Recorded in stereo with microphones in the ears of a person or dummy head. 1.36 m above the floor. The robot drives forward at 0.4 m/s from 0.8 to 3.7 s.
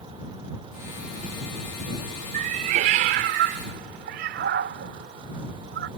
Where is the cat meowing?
45° right (ahead or behind).